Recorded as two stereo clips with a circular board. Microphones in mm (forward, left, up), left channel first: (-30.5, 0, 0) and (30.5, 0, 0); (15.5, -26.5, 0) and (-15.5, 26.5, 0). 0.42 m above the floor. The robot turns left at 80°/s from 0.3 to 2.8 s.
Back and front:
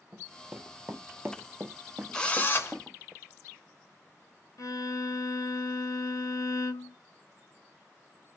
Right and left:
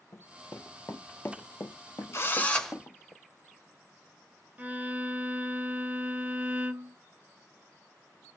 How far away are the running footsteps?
About 0.7 m.